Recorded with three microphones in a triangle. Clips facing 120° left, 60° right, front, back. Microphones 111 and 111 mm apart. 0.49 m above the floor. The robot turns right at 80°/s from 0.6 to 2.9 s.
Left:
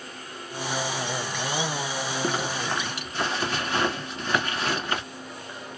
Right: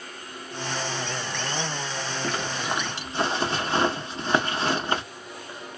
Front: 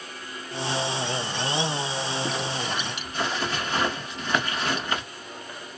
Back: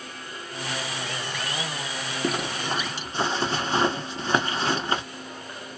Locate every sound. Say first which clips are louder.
2.2 s a zipper: left 1 dB, back 1 dB; 175° right, 0.9 m; by 5.0 s 120° right, 0.9 m